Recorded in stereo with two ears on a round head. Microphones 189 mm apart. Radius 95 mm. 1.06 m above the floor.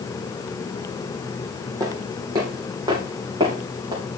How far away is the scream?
No scream in this recording.